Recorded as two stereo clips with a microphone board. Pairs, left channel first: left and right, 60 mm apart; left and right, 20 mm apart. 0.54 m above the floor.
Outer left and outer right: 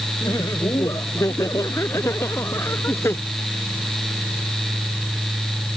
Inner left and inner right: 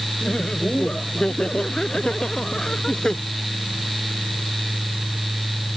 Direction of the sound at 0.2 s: 65° left (ahead or behind).